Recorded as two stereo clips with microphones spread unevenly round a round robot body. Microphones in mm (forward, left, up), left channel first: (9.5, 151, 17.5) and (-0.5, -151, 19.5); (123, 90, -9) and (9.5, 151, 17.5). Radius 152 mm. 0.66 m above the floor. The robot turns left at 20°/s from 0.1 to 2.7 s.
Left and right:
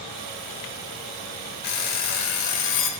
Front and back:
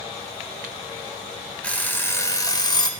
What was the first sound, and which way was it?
An alarm clock, 55° left.